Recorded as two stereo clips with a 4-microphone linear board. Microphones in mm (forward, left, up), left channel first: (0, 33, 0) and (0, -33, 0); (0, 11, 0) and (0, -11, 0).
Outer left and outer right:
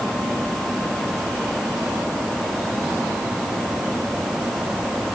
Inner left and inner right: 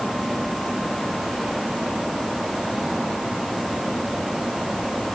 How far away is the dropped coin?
I don't hear a dropped coin.